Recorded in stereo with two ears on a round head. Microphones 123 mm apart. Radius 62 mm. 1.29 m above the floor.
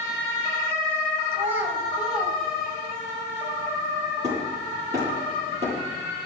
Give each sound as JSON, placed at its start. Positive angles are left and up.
{"t": 1.3, "sound": "a child speaking", "side_deg": -20, "distance_m": 4.5}
{"t": 4.2, "sound": "hammering", "side_deg": -30, "distance_m": 8.0}